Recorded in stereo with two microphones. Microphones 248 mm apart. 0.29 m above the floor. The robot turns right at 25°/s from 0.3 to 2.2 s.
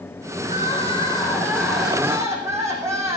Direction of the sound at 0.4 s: 145° left.